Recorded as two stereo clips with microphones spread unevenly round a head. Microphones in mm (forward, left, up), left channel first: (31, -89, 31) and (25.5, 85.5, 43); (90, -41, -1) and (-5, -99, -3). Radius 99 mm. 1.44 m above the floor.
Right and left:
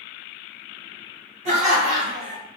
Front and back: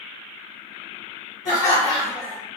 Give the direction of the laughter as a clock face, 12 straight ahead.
11 o'clock.